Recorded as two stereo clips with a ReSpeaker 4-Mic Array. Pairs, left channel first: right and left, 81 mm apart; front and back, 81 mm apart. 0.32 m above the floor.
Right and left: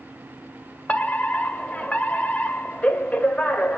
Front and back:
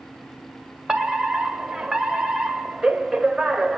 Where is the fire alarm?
120° right, 1.9 m.